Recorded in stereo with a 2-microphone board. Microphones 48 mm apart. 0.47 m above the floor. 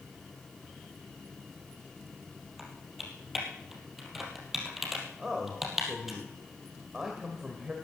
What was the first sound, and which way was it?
Typing on a keyboard, 5° right (ahead or behind).